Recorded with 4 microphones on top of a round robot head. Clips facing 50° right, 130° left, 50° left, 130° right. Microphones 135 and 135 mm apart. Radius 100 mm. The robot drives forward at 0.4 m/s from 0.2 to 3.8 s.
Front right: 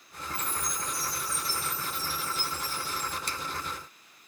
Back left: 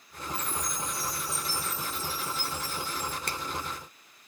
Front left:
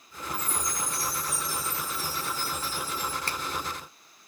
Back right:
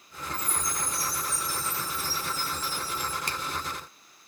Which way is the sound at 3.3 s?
160° left.